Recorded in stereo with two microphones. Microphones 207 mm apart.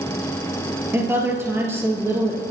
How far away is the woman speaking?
About 3.5 m.